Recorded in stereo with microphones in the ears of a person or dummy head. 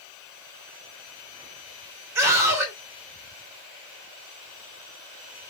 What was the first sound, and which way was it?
A scream, 15° right (ahead or behind).